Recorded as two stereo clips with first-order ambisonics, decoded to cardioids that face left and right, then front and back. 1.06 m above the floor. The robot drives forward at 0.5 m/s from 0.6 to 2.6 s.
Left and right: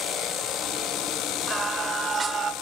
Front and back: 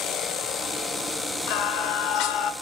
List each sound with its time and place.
1.5 s singing: 15° right, 1.6 m; by 2.5 s 25° right, 1.1 m